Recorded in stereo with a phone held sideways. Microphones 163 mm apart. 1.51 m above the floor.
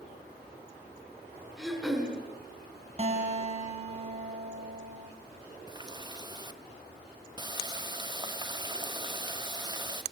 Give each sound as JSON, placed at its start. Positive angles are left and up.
{"t": 1.6, "sound": "throat clearing", "side_deg": 0, "distance_m": 7.0}
{"t": 3.0, "sound": "a guitar", "side_deg": -40, "distance_m": 3.5}
{"t": 5.7, "sound": "a running tap", "side_deg": -25, "distance_m": 1.1}